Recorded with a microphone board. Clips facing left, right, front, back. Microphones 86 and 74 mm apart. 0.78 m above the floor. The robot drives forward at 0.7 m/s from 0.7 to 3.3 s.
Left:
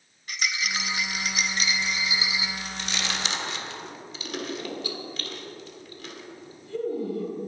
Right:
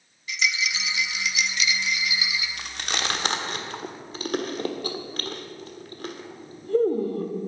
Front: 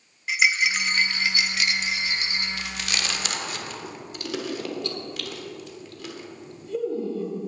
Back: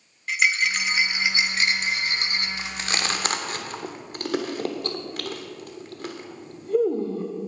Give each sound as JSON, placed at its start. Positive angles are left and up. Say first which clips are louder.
{"t": 0.3, "sound": "a rattle", "louder": "right 2 dB, even", "azimuth_deg": 85, "distance_m": 0.9}
{"t": 2.6, "sound": "chewing", "louder": "right 2 dB, back 2 dB", "azimuth_deg": -115, "distance_m": 1.2}